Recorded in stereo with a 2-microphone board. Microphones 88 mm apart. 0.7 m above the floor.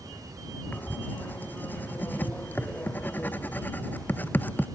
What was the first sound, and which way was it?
Writing, 20° left (ahead or behind).